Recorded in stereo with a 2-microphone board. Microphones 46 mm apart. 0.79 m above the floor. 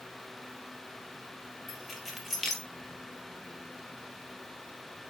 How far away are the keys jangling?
About 1.6 m.